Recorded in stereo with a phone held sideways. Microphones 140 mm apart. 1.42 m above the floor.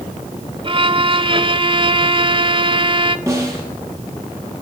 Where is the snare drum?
20° right (ahead or behind), 5 m.